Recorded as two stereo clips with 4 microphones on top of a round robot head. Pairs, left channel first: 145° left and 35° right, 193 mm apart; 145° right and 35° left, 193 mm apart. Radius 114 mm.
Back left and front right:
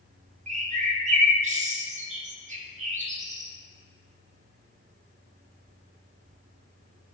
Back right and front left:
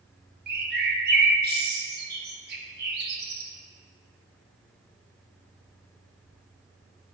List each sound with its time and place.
0.5 s a bird: 10° left, 1.0 m